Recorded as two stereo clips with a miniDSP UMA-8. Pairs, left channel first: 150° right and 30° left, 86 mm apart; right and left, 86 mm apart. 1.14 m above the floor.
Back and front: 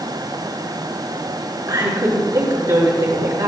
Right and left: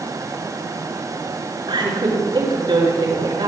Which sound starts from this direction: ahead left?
A woman speaking, at 1.7 s.